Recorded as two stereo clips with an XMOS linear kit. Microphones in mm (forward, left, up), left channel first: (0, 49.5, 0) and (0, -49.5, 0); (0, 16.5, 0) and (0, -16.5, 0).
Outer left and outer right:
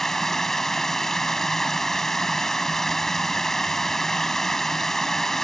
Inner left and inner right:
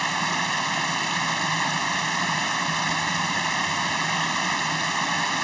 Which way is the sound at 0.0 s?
5° left (ahead or behind).